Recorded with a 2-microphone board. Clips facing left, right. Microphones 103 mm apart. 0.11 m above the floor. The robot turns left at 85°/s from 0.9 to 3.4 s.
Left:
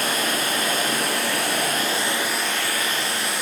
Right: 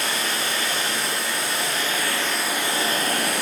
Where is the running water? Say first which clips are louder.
Left 2 dB; 125° left, 0.7 m; by 3.4 s 85° right, 0.7 m.